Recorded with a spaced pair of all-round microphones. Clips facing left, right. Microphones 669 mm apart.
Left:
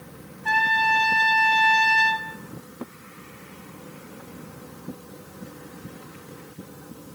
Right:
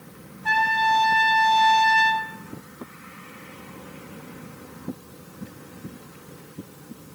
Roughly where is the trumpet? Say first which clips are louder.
Right 2 dB; right.